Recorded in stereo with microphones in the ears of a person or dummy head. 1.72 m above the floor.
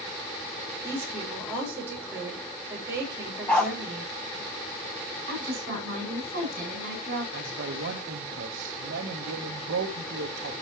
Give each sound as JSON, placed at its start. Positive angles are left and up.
{"t": 0.8, "sound": "a woman speaking", "side_deg": -10, "distance_m": 5.5}
{"t": 3.5, "sound": "a dog barking", "side_deg": 10, "distance_m": 1.2}
{"t": 5.3, "sound": "a woman speaking", "side_deg": -45, "distance_m": 9.0}
{"t": 7.3, "sound": "a man speaking", "side_deg": -55, "distance_m": 1.6}